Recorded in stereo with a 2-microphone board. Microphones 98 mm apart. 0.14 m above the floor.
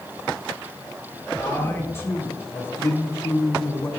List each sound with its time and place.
1.4 s a man speaking: 25° left (ahead or behind), 2.5 m